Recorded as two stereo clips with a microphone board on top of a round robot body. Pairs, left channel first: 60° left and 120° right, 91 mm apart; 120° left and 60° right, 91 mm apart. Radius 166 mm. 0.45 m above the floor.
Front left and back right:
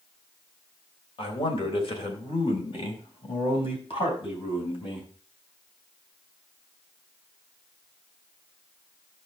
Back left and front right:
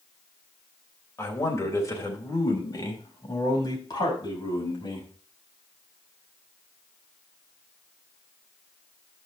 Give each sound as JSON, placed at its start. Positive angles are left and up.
{"t": 1.2, "sound": "a man speaking", "azimuth_deg": 65, "distance_m": 3.0}